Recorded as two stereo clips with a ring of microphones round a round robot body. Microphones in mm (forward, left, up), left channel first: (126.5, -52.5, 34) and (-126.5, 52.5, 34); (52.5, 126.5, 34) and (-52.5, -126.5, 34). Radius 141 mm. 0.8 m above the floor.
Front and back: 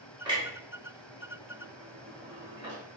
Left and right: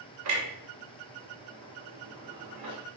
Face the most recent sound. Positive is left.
turn(degrees=-130)